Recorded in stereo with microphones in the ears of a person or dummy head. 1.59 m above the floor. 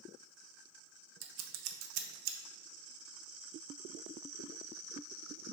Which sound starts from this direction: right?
Scissors, at 1.2 s.